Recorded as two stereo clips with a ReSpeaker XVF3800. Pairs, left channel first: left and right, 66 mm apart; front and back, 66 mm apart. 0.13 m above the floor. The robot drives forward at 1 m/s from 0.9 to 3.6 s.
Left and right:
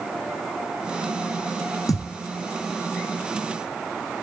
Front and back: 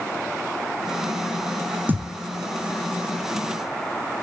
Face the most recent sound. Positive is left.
turn(degrees=160)